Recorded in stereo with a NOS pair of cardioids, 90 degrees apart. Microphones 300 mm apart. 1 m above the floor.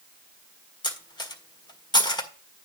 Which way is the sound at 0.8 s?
15° left.